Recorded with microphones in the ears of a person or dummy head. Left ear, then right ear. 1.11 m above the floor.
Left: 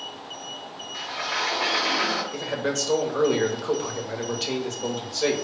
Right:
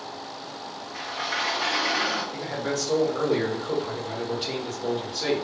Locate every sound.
0.9 s a sliding door: 40° left (ahead or behind), 1.1 m
2.3 s a man speaking: 60° left (ahead or behind), 0.9 m